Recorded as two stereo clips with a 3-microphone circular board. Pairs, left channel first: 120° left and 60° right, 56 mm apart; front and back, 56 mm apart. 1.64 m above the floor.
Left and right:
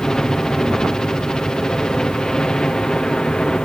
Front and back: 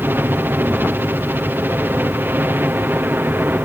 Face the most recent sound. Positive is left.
turn(degrees=-170)